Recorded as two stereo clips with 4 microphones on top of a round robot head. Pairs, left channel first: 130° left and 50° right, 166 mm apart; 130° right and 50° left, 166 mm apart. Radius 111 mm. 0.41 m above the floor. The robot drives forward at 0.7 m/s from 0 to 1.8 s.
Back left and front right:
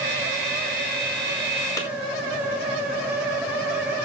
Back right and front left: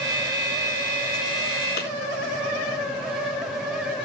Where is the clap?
160° right, 5.5 m.